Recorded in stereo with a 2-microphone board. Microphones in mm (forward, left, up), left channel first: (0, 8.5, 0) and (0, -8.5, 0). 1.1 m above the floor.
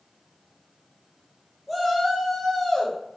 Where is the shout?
Centre (ahead or behind), 1.5 m; by 3.2 s 30° left (ahead or behind), 1.2 m.